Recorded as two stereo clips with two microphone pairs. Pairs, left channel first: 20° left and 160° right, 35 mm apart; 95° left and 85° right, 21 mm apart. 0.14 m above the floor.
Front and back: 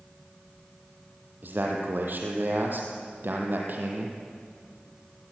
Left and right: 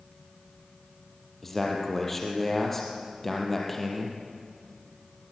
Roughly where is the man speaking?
Behind.